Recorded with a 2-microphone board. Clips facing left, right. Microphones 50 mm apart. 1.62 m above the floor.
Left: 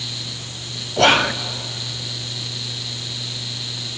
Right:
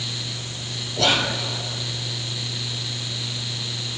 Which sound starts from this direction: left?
Whispering, at 1.0 s.